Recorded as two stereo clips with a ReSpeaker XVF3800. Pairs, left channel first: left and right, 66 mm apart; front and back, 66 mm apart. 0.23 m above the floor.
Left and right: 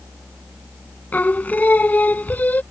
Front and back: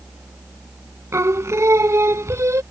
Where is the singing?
150° left.